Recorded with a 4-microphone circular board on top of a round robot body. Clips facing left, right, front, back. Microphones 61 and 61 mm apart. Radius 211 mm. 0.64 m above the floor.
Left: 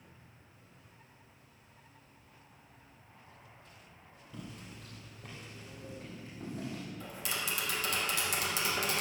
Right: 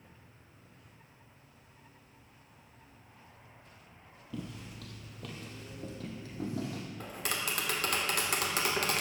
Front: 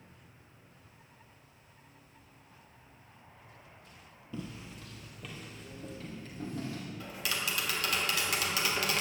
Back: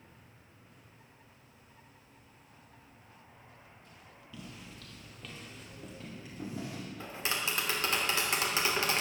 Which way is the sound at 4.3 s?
55° right.